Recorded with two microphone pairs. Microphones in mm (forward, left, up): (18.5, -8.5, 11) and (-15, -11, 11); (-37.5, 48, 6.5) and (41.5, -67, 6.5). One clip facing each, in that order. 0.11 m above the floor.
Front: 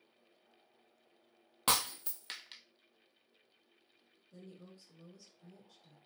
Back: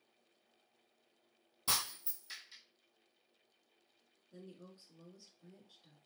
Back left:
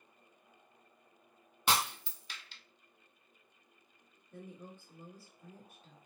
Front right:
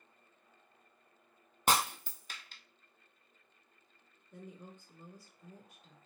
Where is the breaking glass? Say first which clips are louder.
Front 5 dB, front right 2 dB; 15° right, 0.6 m.